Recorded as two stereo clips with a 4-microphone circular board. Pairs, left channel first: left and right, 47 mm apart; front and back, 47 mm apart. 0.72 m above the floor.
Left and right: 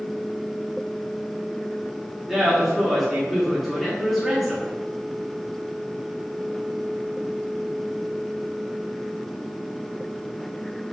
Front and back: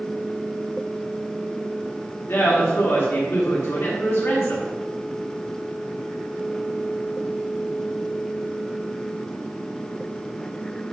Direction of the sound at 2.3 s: Straight ahead.